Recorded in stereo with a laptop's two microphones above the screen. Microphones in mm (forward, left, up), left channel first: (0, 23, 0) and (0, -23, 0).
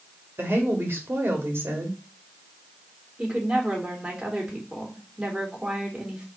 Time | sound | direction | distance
0.4 | a woman speaking | 55° right (ahead or behind) | 2.5 m
3.2 | a woman speaking | 20° right (ahead or behind) | 3.5 m